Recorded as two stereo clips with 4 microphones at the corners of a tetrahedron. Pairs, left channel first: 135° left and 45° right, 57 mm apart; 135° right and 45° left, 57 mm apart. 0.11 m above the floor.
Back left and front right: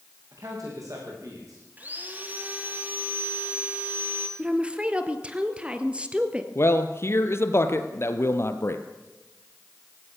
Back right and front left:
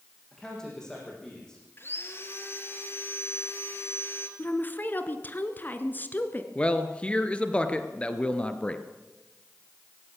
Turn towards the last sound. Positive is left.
turn(degrees=160)